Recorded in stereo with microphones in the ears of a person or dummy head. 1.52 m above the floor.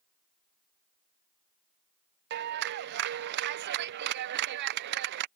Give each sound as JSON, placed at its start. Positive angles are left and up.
{"t": 2.3, "sound": "a clap", "side_deg": -65}